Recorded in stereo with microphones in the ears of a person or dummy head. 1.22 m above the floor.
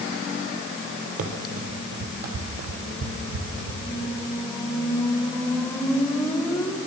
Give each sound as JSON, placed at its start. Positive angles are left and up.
{"t": 1.2, "sound": "running footsteps", "side_deg": -45, "distance_m": 2.5}
{"t": 3.8, "sound": "a squeak", "side_deg": 5, "distance_m": 1.9}